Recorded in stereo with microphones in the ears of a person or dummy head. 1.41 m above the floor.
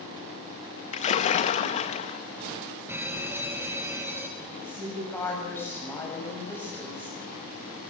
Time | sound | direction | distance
0.9 | a splash | 45° left (ahead or behind) | 1.3 m
2.9 | an alarm | 10° right (ahead or behind) | 2 m
4.4 | a woman speaking | 15° left (ahead or behind) | 8 m